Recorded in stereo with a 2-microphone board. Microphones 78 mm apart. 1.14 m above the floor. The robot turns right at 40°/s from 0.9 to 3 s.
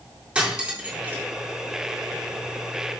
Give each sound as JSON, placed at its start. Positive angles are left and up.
{"t": 0.3, "sound": "cutlery clinking", "side_deg": -15, "distance_m": 2.0}